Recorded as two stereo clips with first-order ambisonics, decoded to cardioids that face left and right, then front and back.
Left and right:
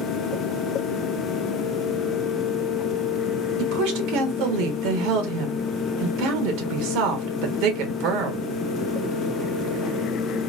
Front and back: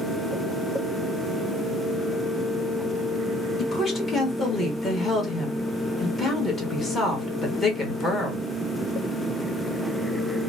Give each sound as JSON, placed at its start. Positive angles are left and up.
{"t": 3.6, "sound": "a woman speaking", "azimuth_deg": -70, "distance_m": 1.6}